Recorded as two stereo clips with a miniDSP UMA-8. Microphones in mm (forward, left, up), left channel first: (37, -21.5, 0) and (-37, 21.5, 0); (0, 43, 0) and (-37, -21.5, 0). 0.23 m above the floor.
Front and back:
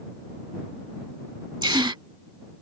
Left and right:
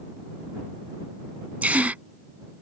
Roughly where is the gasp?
Behind.